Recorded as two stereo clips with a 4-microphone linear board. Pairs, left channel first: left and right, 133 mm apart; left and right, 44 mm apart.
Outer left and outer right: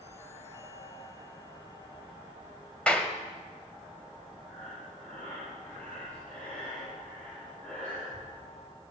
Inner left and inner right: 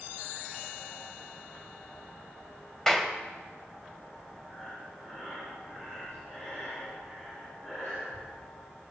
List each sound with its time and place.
2.9 s a clap: 10° left (ahead or behind), 1.6 m
4.5 s breathing: 10° left (ahead or behind), 8 m